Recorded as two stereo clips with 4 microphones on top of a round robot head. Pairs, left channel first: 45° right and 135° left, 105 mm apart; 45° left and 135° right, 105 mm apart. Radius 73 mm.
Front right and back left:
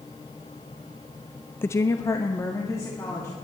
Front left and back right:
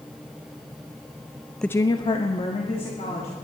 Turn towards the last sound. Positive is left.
turn(degrees=20)